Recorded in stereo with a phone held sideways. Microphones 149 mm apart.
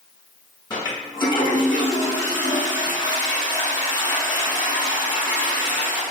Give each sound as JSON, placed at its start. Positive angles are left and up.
{"t": 0.7, "sound": "a toilet flushing", "side_deg": 30, "distance_m": 1.4}